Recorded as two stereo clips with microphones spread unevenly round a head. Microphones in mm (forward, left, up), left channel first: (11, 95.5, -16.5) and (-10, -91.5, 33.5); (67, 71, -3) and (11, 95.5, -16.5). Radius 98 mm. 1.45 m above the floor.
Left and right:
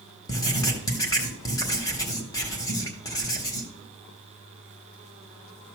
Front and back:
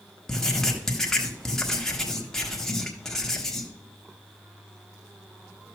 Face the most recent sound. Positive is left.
turn(degrees=0)